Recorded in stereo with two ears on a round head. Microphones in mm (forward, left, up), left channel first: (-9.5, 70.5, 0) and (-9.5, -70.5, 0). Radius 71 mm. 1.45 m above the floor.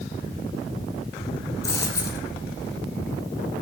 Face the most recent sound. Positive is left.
turn(degrees=20)  # may be behind; listen again after turning